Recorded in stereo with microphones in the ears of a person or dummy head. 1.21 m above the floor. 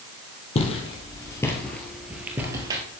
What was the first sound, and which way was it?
Footsteps, 35° left (ahead or behind).